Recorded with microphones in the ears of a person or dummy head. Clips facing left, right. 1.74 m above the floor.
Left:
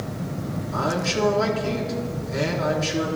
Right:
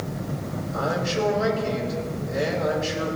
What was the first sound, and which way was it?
A man speaking, 80° left.